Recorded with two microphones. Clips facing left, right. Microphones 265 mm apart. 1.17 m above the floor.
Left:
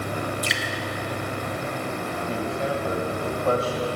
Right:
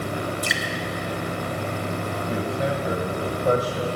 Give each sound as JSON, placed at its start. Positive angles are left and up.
{"t": 0.4, "sound": "dripping", "side_deg": -50, "distance_m": 0.8}
{"t": 2.3, "sound": "a man speaking", "side_deg": -20, "distance_m": 1.2}